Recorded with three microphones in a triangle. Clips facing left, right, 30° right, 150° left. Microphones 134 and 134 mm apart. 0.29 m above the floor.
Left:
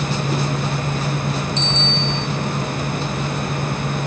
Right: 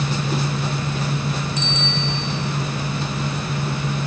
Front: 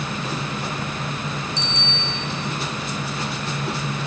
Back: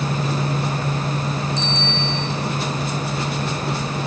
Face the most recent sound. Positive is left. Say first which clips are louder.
# left 2 dB, back 5 dB
turn(degrees=-10)